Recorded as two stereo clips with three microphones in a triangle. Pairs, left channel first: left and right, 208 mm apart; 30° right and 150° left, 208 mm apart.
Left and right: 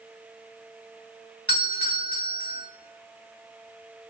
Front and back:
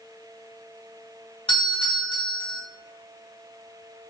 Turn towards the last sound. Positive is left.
turn(degrees=-90)